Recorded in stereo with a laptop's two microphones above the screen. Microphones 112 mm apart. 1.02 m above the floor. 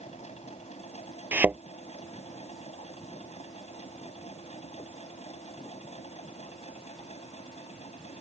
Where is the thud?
15° right (ahead or behind).